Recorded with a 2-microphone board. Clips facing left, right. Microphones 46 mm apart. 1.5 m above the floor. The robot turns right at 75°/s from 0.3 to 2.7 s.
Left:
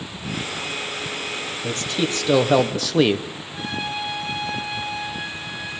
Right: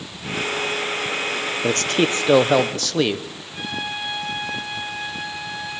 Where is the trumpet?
50° right (ahead or behind), 6.5 m.